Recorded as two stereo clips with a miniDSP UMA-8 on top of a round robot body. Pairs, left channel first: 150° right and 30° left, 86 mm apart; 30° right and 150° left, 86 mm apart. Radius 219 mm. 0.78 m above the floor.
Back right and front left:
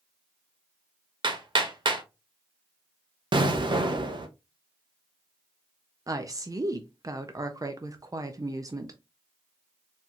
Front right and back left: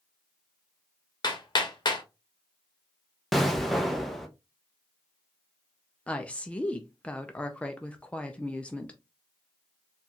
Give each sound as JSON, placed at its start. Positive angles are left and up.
{"t": 1.2, "sound": "hammering", "azimuth_deg": 5, "distance_m": 1.1}
{"t": 3.3, "sound": "an explosion", "azimuth_deg": 60, "distance_m": 0.7}
{"t": 6.1, "sound": "a woman speaking", "azimuth_deg": 40, "distance_m": 0.7}